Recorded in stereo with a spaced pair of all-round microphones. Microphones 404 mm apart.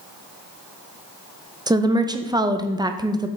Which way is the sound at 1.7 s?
10° right (ahead or behind).